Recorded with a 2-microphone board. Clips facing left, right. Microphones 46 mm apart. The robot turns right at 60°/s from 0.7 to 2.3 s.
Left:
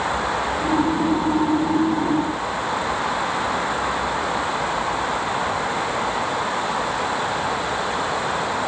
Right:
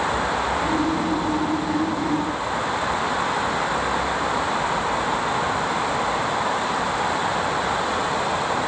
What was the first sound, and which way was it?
Only background noise.